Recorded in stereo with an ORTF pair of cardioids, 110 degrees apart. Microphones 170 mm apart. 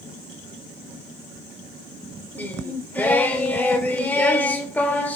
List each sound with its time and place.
2.4 s singing: 10° left, 1.5 m